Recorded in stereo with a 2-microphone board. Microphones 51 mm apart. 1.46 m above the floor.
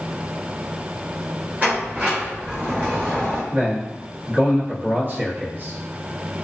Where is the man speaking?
40° right (ahead or behind), 0.9 m.